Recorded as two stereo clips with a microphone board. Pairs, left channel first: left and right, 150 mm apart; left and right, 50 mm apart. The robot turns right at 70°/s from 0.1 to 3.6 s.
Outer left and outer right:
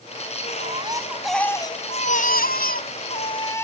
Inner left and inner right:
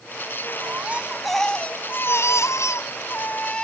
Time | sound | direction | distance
0.6 | a baby crying | 50° right | ?